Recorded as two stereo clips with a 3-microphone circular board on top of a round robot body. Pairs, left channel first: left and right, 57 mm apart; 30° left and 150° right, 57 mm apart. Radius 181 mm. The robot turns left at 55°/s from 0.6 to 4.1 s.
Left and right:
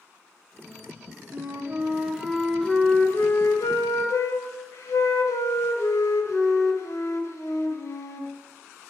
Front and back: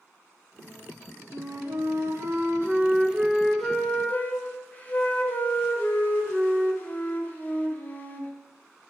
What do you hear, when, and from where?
1.3 s a flute: 120° right, 1.2 m; by 8.3 s 85° left, 1.2 m